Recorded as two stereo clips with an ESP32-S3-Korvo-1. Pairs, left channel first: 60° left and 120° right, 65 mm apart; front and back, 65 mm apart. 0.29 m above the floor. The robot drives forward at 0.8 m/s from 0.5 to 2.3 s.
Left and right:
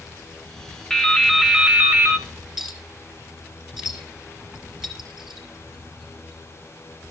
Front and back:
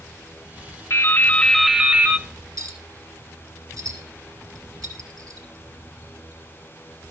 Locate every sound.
0.9 s dripping: 20° right, 0.8 m; by 2.3 s 160° right, 0.8 m
2.6 s a clink: 160° left, 2.5 m